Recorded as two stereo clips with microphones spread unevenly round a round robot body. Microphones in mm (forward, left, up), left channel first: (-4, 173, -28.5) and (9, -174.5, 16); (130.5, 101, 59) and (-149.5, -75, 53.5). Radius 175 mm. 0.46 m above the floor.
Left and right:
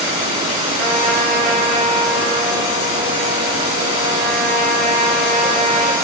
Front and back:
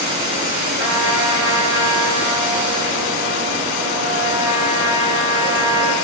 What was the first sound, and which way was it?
A trumpet, 95° right.